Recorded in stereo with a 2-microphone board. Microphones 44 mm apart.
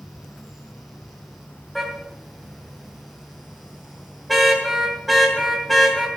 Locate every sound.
0.0 s an insect: 65° left (ahead or behind), 4.5 m
1.8 s a car horn: centre (ahead or behind), 2.5 m